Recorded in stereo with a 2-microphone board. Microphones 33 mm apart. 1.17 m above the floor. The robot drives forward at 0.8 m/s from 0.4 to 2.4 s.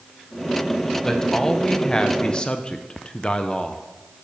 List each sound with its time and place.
1.0 s a man speaking: 15° left (ahead or behind), 1.2 m; by 3.8 s 30° left (ahead or behind), 0.7 m